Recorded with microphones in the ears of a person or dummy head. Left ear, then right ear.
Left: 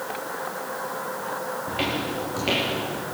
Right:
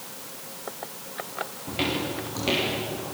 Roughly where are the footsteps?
Centre.